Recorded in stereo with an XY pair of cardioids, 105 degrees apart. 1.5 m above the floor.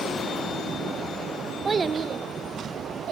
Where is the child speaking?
30° right, 1.0 m; by 3.1 s 65° right, 1.9 m.